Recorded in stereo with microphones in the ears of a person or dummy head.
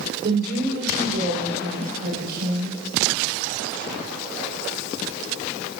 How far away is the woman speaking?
About 4.5 m.